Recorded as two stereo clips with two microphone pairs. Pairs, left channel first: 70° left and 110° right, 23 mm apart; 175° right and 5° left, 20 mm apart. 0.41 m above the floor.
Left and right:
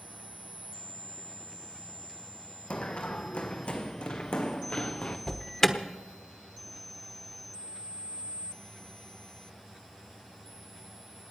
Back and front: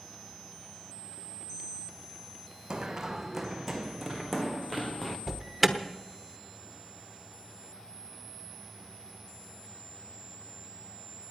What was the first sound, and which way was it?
Running footsteps, 60° left.